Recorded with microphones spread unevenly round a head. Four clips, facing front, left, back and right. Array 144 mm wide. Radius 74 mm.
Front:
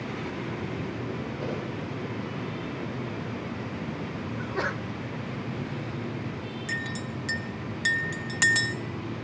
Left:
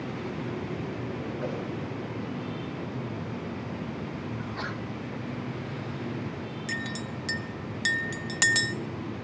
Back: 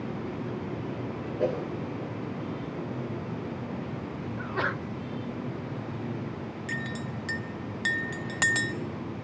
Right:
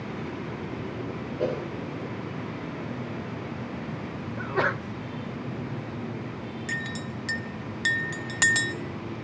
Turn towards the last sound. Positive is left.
turn(degrees=-175)